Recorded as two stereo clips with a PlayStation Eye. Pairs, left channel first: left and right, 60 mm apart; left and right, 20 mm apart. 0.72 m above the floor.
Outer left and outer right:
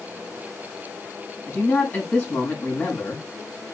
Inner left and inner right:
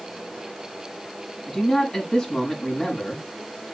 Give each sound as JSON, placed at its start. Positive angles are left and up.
{"t": 1.5, "sound": "a man speaking", "side_deg": 25, "distance_m": 6.5}